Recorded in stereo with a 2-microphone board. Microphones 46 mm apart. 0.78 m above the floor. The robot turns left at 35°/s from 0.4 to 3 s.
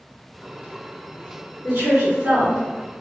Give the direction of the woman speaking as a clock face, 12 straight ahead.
3 o'clock.